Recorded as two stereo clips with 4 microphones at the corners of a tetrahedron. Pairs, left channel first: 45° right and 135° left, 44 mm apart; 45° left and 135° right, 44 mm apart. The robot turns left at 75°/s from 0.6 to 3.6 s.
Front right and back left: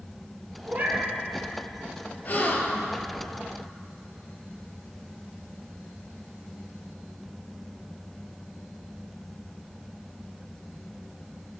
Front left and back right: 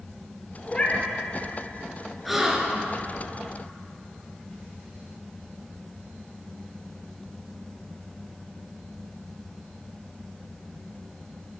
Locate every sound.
0.7 s a cat meowing: 110° left, 0.6 m; by 1.1 s 80° left, 0.6 m
2.2 s a gasp: 45° right, 0.5 m; by 3.0 s 100° right, 0.5 m